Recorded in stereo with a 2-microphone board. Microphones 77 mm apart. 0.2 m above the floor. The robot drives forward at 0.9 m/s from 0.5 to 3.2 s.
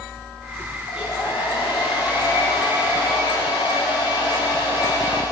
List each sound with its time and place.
0.9 s a hair dryer: 80° left, 8 m